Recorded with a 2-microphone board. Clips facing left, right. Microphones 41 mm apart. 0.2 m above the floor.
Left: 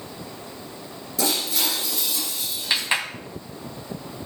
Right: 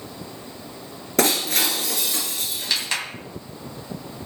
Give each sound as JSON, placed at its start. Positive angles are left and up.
{"t": 1.2, "sound": "breaking glass", "side_deg": -70, "distance_m": 2.0}
{"t": 2.7, "sound": "a clap", "side_deg": 25, "distance_m": 1.0}